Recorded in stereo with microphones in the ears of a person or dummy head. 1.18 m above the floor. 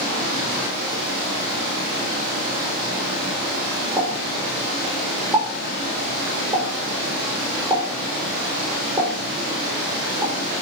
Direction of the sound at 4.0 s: 10° right (ahead or behind).